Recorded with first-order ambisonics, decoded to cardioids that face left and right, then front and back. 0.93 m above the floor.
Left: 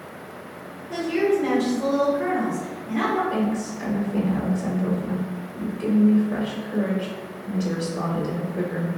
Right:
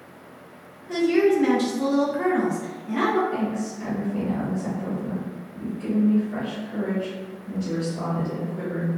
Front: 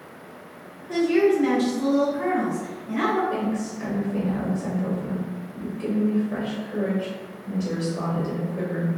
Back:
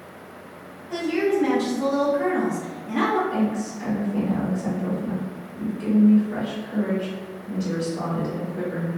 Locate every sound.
0.9 s a woman speaking: 60° right, 1.1 m; by 3.2 s 150° right, 0.8 m
3.3 s a woman speaking: 75° left, 0.8 m